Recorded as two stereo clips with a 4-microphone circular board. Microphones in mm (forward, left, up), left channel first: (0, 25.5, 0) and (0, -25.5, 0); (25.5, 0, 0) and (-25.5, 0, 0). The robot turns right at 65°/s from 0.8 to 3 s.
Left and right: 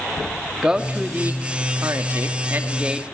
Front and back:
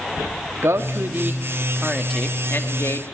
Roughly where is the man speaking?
Behind.